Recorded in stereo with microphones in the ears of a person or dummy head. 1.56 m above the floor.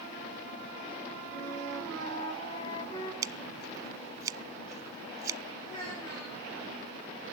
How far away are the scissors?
About 0.6 m.